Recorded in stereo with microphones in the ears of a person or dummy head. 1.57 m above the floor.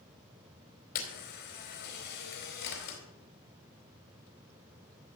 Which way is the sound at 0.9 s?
60° left (ahead or behind).